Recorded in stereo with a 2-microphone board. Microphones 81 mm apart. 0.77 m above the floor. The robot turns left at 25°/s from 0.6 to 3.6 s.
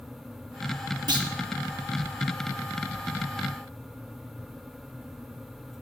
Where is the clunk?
60° right (ahead or behind), 1.3 m.